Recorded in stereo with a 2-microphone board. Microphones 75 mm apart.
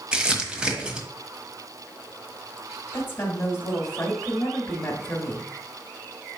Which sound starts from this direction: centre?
Crumpling, at 0.1 s.